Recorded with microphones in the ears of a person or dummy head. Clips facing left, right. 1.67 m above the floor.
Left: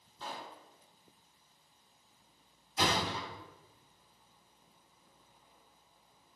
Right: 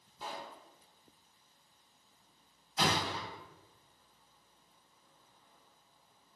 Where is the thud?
10° left (ahead or behind), 1.7 m.